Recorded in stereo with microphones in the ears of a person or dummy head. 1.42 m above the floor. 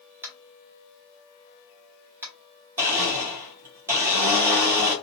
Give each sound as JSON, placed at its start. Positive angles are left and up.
{"t": 0.2, "sound": "tapping", "side_deg": -10, "distance_m": 1.4}
{"t": 2.8, "sound": "a blender", "side_deg": -15, "distance_m": 1.6}